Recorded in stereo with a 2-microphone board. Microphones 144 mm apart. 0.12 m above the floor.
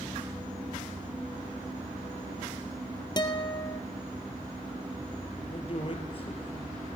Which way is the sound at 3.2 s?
30° left (ahead or behind).